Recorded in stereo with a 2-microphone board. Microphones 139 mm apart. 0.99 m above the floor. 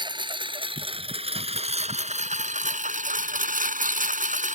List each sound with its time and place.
0.0 s a lawn mower: 35° right (ahead or behind); by 4.6 s 65° right (ahead or behind)